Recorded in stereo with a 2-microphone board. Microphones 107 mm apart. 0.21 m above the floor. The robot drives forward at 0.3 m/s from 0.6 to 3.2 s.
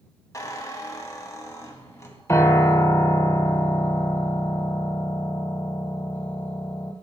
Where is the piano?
25° left (ahead or behind), 1.3 m; by 6.9 s 30° left (ahead or behind), 1.0 m.